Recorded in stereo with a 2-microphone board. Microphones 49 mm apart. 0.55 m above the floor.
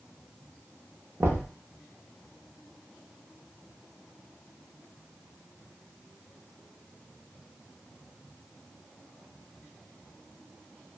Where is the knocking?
55° right (ahead or behind), 0.6 m.